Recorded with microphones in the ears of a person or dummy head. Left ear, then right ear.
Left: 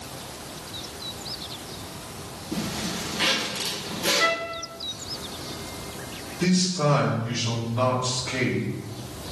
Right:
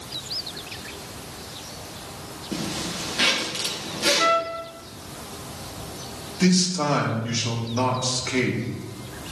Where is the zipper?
70° right (ahead or behind), 3 m.